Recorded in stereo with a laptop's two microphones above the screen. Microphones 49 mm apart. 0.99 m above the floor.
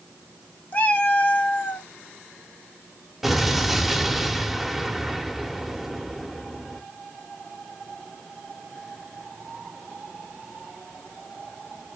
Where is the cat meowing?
30° left (ahead or behind), 0.6 m.